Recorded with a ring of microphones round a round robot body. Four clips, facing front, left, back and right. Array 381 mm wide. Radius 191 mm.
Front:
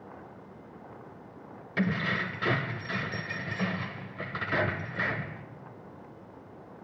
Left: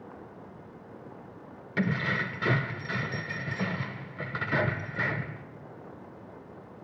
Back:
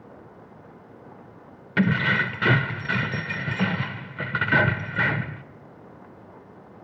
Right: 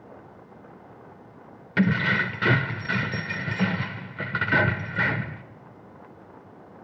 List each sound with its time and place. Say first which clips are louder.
1.8 s keys jangling: right 6 dB, back 7 dB; 150° right, 0.6 m